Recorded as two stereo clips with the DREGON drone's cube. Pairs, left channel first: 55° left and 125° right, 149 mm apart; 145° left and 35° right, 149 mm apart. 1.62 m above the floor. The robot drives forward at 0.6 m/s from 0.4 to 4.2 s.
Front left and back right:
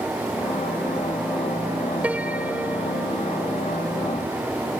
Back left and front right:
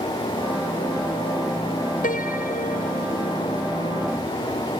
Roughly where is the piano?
Behind left.